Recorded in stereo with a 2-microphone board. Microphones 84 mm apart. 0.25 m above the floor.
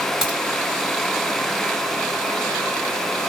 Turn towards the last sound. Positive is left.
turn(degrees=-5)  # may be behind; listen again after turning